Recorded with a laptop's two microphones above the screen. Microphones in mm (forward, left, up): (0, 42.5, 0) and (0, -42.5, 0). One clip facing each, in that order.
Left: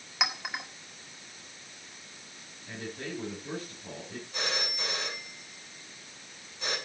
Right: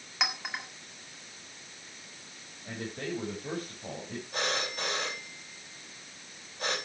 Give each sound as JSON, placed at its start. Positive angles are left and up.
{"t": 0.2, "sound": "a clink", "side_deg": 5, "distance_m": 1.7}
{"t": 2.6, "sound": "a man speaking", "side_deg": -70, "distance_m": 5.0}
{"t": 4.3, "sound": "a phone ringing", "side_deg": -55, "distance_m": 5.0}